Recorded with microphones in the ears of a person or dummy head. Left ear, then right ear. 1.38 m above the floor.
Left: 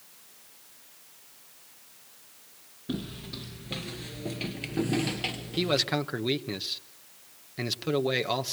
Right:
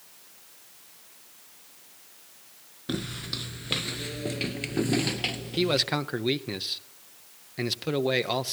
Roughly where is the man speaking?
Centre.